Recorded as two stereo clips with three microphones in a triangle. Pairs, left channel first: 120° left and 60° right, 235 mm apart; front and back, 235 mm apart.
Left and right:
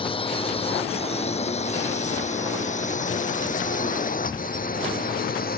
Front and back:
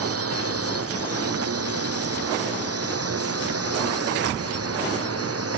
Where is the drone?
170° right; by 5.6 s 170° left.